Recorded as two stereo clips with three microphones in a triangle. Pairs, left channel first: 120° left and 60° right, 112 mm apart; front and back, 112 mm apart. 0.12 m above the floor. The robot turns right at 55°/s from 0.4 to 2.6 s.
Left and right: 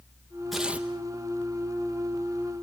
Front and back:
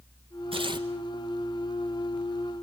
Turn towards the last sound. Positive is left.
turn(degrees=-35)